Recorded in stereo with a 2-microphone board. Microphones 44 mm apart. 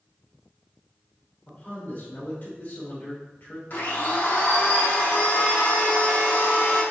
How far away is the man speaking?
About 3 m.